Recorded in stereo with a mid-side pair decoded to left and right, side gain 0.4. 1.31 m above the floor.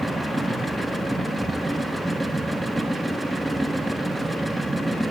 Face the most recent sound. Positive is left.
turn(degrees=-10)